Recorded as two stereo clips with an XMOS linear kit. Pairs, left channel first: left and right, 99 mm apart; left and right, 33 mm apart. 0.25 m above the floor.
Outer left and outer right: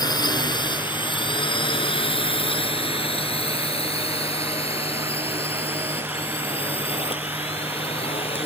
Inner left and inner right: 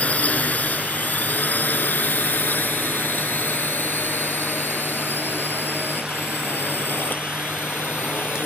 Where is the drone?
45° left (ahead or behind); by 8.5 s 70° left (ahead or behind).